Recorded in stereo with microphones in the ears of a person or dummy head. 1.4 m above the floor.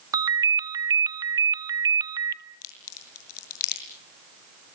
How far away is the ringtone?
About 1.6 m.